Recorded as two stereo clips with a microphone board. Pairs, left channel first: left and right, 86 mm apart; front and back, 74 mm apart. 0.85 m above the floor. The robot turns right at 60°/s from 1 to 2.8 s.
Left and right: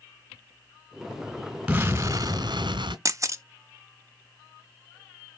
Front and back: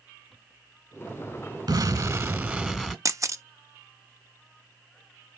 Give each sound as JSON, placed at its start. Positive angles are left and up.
{"t": 1.7, "sound": "an explosion", "azimuth_deg": -165, "distance_m": 2.0}
{"t": 3.0, "sound": "a camera shutter", "azimuth_deg": -140, "distance_m": 0.6}